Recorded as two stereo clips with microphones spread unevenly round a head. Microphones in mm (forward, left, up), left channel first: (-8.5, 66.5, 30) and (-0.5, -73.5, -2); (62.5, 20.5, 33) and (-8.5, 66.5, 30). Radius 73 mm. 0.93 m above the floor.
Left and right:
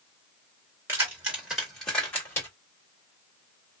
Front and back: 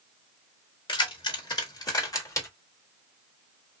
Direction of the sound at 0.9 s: 10° right.